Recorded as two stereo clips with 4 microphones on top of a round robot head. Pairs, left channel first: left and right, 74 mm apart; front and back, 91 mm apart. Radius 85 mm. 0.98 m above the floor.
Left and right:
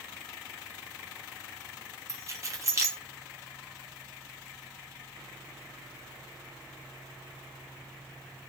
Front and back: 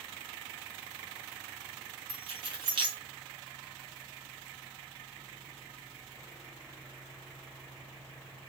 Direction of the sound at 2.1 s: 140° right.